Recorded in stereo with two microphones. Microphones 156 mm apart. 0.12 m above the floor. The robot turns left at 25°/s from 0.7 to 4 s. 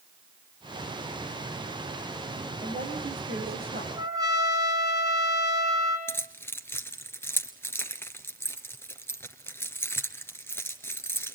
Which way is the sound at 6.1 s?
15° left (ahead or behind).